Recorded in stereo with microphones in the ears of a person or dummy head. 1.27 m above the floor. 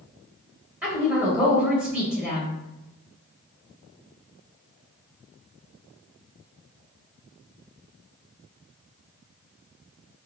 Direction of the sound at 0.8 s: 10° right (ahead or behind).